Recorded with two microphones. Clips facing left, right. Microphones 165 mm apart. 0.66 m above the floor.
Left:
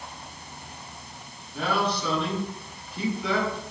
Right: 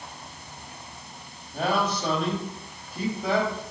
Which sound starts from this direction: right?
A man speaking, at 1.5 s.